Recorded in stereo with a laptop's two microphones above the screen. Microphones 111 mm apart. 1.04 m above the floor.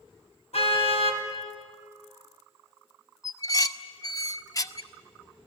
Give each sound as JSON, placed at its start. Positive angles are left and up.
{"t": 0.5, "sound": "a car horn", "side_deg": 65, "distance_m": 3.5}
{"t": 3.2, "sound": "dishes clattering", "side_deg": 30, "distance_m": 0.9}